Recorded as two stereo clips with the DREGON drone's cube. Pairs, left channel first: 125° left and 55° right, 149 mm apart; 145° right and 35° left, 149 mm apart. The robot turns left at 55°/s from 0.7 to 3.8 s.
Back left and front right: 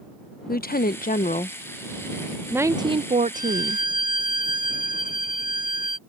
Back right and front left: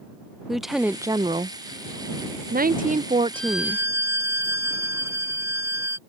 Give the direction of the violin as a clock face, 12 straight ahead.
8 o'clock.